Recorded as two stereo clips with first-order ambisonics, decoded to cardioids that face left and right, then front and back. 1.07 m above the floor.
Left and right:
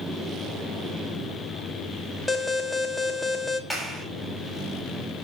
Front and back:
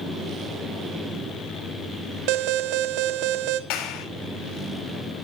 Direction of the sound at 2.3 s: 175° left.